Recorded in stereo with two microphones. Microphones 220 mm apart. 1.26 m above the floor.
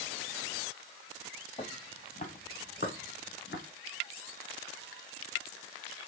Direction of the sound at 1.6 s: 20° left (ahead or behind).